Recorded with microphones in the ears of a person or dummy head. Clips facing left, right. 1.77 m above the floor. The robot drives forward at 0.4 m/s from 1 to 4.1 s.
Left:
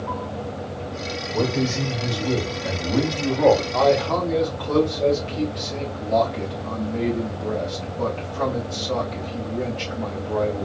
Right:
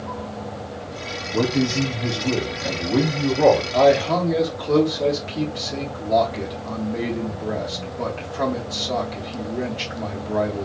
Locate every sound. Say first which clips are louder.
1.3 s a man speaking: right 3 dB; 30° right (ahead or behind), 0.9 m; by 3.6 s 15° right (ahead or behind), 1.6 m
3.7 s a man speaking: right 3 dB; 25° right (ahead or behind), 1.2 m; by 10.6 s 20° right (ahead or behind), 1.3 m